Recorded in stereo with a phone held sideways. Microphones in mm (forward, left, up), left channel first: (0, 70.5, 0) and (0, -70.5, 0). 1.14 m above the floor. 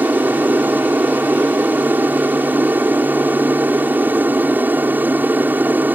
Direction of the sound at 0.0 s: 10° right (ahead or behind).